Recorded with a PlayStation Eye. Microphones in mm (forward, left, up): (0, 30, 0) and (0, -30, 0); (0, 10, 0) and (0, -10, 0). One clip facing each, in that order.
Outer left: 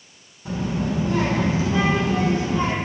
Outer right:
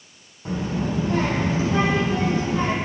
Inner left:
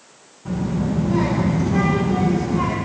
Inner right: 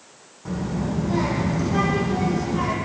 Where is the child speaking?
45° right (ahead or behind), 6 m; by 2.8 s 35° right (ahead or behind), 4.5 m.